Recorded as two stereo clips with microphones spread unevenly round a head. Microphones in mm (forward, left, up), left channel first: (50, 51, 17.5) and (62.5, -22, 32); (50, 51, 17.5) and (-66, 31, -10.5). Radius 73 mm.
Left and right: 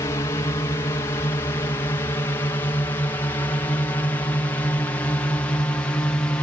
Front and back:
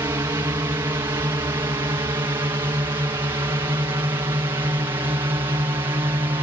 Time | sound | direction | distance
0.0 | a drone | 135° left | ?